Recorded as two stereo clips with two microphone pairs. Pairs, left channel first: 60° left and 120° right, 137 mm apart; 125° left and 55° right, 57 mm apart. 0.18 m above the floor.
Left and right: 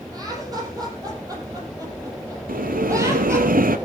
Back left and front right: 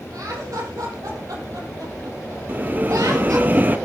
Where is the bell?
115° right, 0.9 m.